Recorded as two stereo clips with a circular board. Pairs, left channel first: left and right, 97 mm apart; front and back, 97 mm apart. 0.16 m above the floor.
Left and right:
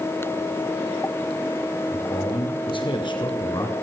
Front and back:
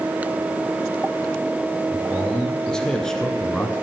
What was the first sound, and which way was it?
A man speaking, 80° left.